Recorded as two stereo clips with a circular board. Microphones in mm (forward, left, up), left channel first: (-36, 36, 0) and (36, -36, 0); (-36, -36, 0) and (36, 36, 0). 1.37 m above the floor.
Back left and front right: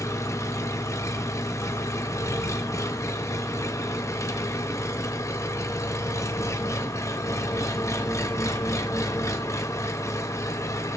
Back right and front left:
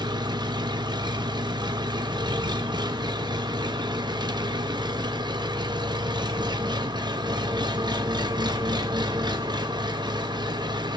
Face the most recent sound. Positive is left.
turn(degrees=80)